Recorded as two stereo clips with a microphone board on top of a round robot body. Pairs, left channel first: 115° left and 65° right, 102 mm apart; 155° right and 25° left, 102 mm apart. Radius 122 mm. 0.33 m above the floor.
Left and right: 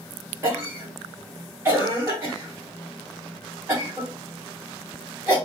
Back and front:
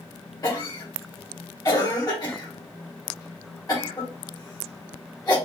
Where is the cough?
120° right, 1.9 m.